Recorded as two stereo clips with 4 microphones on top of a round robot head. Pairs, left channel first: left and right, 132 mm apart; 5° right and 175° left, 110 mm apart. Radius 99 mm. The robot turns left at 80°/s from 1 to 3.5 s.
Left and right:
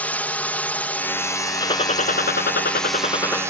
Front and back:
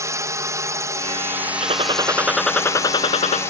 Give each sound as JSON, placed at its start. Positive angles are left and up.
{"t": 0.0, "sound": "a drone", "azimuth_deg": 155}
{"t": 1.6, "sound": "a gunshot", "azimuth_deg": 150}